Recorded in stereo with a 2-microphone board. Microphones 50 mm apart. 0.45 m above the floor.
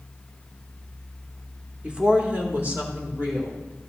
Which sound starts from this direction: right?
A woman speaking, at 1.8 s.